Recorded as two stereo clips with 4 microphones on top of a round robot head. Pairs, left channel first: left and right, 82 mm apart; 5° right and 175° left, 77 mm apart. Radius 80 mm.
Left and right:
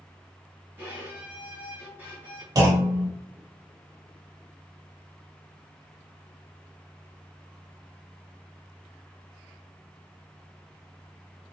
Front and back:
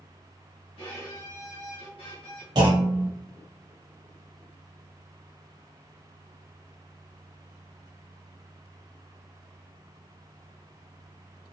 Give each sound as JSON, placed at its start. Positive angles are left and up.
{"t": 0.8, "sound": "a violin", "azimuth_deg": -20, "distance_m": 1.5}
{"t": 2.5, "sound": "a clunk", "azimuth_deg": -140, "distance_m": 1.0}